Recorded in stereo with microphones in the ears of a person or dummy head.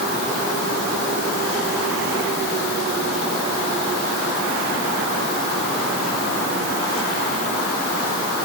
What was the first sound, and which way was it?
Only background noise.